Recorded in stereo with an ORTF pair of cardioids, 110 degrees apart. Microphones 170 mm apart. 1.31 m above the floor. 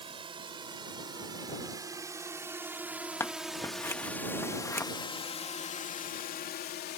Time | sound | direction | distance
0.0 | a drone | 30° right | ?
3.2 | scissors | 15° left | ?